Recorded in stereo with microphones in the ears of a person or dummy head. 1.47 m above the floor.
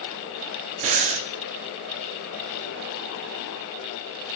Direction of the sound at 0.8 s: 35° right (ahead or behind).